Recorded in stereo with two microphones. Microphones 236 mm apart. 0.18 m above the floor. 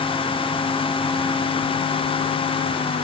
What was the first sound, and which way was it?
Only background noise.